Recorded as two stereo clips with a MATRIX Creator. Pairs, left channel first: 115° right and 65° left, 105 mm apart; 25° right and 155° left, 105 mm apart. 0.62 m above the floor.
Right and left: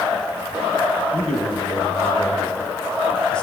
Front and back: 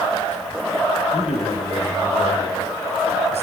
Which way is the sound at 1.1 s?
35° right.